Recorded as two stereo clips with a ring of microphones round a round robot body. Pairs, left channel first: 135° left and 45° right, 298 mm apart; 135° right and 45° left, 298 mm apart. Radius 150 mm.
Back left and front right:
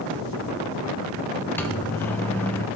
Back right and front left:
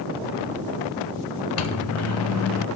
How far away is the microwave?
About 1.0 m.